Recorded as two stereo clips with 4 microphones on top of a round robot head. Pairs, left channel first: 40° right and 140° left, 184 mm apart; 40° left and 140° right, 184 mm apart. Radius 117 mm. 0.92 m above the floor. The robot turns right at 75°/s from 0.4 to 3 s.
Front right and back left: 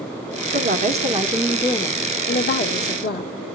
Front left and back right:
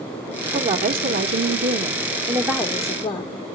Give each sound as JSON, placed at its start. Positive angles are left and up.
{"t": 0.5, "sound": "a woman speaking", "azimuth_deg": 155, "distance_m": 1.5}